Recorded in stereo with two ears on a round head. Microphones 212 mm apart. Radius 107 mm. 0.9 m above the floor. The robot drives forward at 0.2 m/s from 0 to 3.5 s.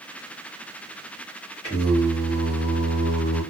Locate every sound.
1.6 s singing: 25° left (ahead or behind), 1.5 m; by 3.4 s 20° left (ahead or behind), 1.7 m